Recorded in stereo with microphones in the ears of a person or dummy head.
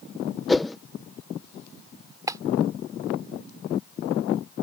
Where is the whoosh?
Centre (ahead or behind).